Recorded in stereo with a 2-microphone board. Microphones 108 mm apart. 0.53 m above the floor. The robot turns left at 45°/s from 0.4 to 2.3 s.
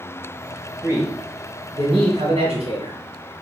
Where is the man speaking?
25° right, 2.5 m; by 3.0 s 90° right, 2.5 m.